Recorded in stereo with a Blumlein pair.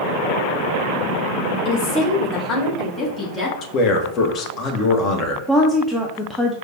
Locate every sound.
1.6 s a woman speaking: 45° left, 0.9 m; by 3.5 s 10° left, 2.5 m
3.6 s a man speaking: 30° left, 1.0 m
5.5 s a woman speaking: 5° left, 0.6 m